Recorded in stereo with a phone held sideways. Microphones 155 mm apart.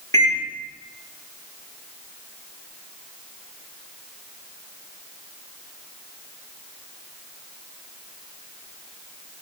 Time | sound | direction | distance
0.1 | a microwave | 20° left (ahead or behind) | 1.9 m